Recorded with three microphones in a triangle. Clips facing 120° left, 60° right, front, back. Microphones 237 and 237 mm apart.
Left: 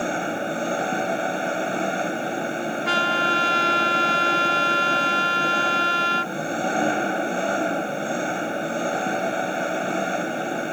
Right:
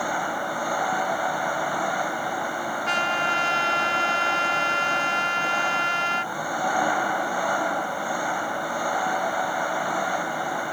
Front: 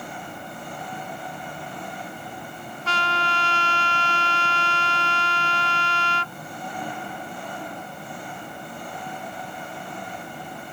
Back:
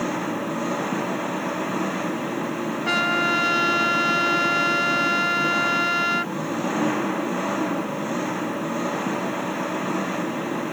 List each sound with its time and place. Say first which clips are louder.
0.0 s an engine running: left 4 dB, back 13 dB; 175° right
2.9 s a trumpet: left 4 dB, back 7 dB; 105° left